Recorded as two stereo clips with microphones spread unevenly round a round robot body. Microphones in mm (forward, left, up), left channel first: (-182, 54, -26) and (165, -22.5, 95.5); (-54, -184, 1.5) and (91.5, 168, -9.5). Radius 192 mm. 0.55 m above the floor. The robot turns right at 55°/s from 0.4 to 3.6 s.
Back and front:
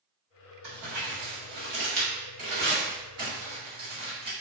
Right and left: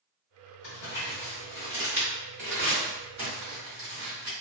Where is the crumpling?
85° right, 1.6 m; by 4.3 s 80° left, 1.6 m.